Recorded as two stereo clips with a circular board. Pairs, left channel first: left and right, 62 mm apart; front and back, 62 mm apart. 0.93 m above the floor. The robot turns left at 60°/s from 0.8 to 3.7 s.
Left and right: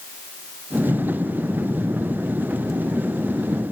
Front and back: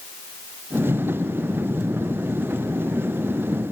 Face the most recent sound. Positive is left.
turn(degrees=55)